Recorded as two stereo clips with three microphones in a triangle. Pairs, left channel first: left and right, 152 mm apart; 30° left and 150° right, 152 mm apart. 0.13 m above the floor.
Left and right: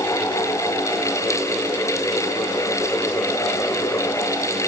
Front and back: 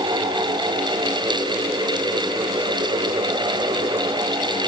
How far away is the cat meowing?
No cat meowing in this recording.